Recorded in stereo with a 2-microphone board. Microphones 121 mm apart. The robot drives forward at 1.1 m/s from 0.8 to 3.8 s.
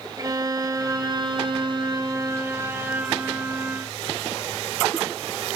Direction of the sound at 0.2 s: 30° right (ahead or behind).